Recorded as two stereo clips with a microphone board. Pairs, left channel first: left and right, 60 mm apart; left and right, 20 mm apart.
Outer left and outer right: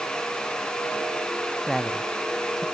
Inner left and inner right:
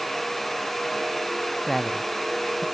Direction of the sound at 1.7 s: 5° right (ahead or behind).